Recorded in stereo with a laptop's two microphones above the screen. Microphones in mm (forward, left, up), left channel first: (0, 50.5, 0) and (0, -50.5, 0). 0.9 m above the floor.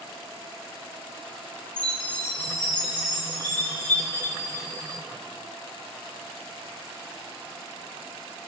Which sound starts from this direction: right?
A chime, at 1.8 s.